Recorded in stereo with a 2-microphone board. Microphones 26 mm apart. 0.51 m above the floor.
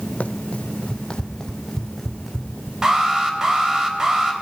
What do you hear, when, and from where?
0.2 s running footsteps: 60° left (ahead or behind), 1.5 m; by 2.7 s 10° right (ahead or behind), 1.9 m
2.8 s an alarm: 25° right (ahead or behind), 3 m